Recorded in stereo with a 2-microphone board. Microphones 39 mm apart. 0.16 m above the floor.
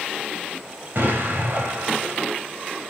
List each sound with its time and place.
0.9 s an explosion: 60° right (ahead or behind), 5.5 m